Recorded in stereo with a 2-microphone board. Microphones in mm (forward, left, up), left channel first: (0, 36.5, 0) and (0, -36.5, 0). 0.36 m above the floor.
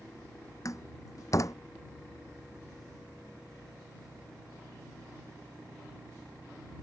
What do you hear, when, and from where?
0.7 s a door slam: 50° left (ahead or behind)